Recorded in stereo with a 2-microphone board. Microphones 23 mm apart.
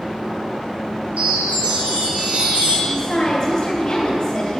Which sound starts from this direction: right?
A chime, at 1.2 s.